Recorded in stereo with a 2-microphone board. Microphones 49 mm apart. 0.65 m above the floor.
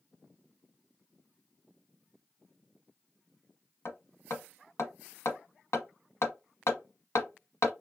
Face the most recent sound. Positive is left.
turn(degrees=70)  # may be behind; listen again after turning